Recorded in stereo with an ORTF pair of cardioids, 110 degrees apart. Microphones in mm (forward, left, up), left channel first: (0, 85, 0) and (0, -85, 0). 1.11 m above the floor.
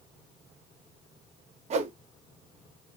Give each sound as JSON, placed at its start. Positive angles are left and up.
{"t": 1.7, "sound": "a whoosh", "azimuth_deg": -45, "distance_m": 0.8}